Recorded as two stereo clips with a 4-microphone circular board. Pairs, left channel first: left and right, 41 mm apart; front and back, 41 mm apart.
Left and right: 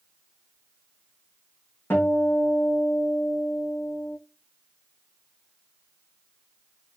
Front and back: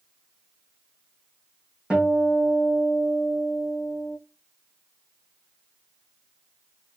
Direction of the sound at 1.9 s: 115° left.